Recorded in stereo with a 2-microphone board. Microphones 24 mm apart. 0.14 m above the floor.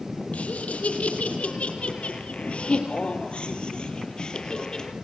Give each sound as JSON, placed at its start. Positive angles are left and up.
{"t": 0.3, "sound": "laughter", "side_deg": 70, "distance_m": 5.0}